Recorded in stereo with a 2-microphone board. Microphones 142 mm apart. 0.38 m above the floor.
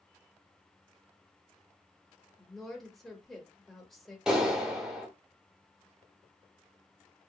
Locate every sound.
2.4 s a woman speaking: 5° left (ahead or behind), 1.0 m
4.3 s a clap: 5° right (ahead or behind), 1.0 m